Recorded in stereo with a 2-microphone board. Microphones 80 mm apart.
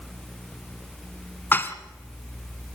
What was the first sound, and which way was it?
Dishes clattering, 25° left (ahead or behind).